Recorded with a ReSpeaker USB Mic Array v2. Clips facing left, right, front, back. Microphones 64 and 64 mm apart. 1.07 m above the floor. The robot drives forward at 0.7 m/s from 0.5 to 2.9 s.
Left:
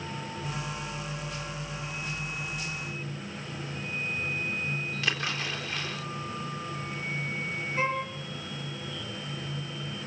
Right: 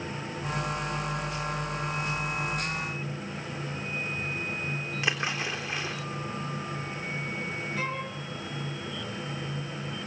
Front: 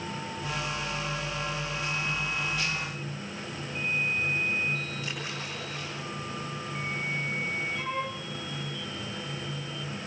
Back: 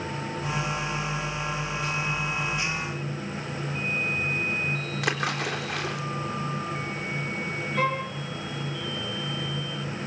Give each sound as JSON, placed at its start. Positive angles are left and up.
{"t": 5.0, "sound": "a splash", "azimuth_deg": -160, "distance_m": 3.5}
{"t": 7.8, "sound": "a violin", "azimuth_deg": 150, "distance_m": 7.0}